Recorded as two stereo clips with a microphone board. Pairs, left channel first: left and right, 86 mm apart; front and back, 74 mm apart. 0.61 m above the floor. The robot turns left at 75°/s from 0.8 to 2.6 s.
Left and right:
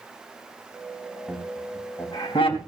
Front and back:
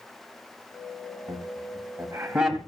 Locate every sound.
1.3 s laughter: 175° right, 3 m; by 2.6 s 85° left, 3 m